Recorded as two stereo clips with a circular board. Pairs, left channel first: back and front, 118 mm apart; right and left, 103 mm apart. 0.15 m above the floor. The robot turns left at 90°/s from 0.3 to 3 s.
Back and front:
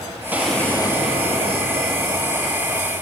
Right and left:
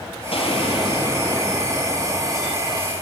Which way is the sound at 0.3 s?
75° right.